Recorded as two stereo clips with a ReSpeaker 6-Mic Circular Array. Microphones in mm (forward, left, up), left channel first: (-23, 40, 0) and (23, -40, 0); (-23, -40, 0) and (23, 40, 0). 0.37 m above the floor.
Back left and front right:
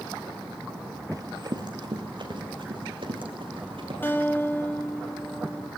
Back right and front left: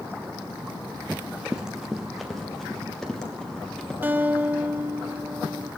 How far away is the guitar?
About 0.9 m.